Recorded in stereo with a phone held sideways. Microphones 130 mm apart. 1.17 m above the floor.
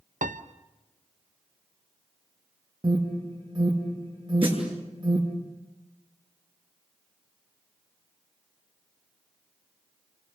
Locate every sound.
0.2 s a piano: 75° right (ahead or behind), 1.0 m
2.8 s an alarm: 35° right (ahead or behind), 3 m
4.4 s a snare drum: 40° right (ahead or behind), 8 m